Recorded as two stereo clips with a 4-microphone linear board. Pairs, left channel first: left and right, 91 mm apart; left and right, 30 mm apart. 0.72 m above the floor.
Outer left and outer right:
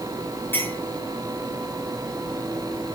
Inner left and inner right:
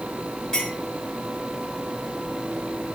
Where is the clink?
25° left (ahead or behind), 6.5 m.